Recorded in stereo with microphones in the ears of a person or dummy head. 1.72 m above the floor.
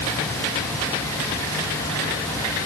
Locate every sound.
Only background noise.